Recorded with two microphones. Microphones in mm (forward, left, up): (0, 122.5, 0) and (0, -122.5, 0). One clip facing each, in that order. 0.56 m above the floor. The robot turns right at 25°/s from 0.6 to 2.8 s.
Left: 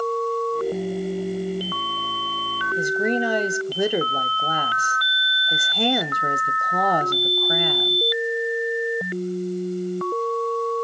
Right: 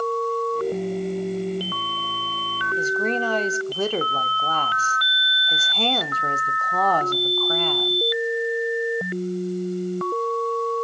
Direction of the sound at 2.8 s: 15° left (ahead or behind).